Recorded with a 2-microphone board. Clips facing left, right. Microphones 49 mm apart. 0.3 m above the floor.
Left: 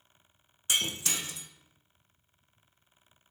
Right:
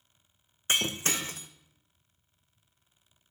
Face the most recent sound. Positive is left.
turn(degrees=-40)  # may be behind; listen again after turning